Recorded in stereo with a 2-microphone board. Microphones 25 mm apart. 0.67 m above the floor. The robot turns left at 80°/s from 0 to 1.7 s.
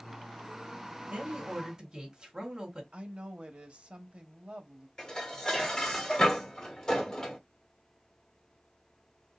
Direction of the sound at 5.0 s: 30° left (ahead or behind).